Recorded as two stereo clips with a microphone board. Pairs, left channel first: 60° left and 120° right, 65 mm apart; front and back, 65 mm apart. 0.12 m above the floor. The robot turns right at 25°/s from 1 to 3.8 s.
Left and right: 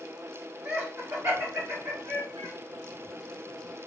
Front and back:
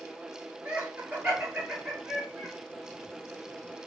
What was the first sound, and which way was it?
Laughter, 130° right.